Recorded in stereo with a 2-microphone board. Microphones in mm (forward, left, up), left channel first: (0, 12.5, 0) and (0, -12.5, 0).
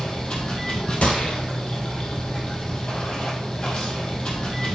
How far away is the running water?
About 3 m.